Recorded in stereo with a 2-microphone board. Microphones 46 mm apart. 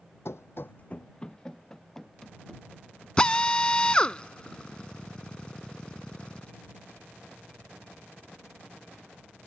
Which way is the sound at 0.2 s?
70° left (ahead or behind).